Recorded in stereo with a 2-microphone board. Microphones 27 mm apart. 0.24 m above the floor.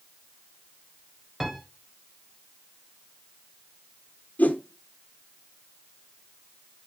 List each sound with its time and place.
1.4 s a piano: 10° right (ahead or behind), 1.4 m
4.4 s a whoosh: 85° left, 1.1 m